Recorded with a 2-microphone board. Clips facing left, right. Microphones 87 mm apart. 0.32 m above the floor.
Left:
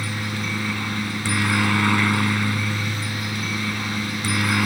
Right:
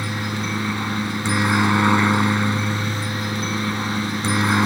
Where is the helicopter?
20° right (ahead or behind); by 4.7 s 25° right (ahead or behind).